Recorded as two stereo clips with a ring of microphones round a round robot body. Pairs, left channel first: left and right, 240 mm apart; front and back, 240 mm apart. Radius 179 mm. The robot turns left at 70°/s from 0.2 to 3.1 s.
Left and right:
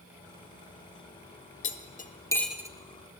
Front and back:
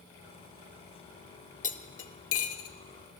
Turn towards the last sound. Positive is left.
turn(degrees=-45)